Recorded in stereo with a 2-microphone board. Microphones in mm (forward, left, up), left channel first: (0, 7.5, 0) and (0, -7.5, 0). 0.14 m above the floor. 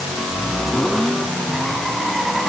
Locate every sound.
Only background noise.